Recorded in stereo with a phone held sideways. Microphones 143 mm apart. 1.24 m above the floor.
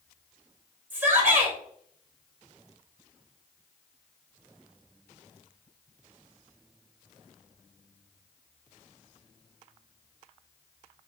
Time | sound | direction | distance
0.9 | a shout | 15° right (ahead or behind) | 2.5 m